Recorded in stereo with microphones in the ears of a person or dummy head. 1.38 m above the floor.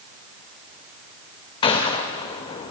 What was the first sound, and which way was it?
A gunshot, 25° left (ahead or behind).